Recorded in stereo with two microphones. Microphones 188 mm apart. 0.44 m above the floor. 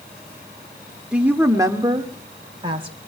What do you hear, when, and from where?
1.1 s a woman speaking: 5° right (ahead or behind), 1.3 m; by 3.0 s 30° right (ahead or behind), 2 m